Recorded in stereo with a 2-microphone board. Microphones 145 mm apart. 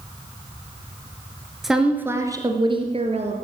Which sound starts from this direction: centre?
A woman speaking, at 1.6 s.